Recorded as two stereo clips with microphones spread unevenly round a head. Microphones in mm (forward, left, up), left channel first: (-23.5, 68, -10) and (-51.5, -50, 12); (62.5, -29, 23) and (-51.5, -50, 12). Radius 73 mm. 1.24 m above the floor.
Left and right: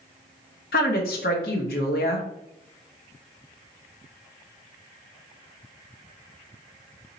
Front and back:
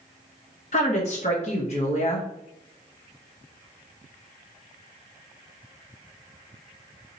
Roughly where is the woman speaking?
Ahead left.